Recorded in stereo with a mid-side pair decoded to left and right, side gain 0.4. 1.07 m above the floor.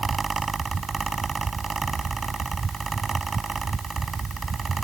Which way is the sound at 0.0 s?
35° right.